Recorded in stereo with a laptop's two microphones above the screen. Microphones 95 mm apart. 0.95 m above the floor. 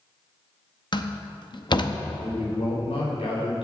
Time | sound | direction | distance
0.9 | a door slam | 50° left (ahead or behind) | 0.6 m
2.2 | a man speaking | 80° left | 4 m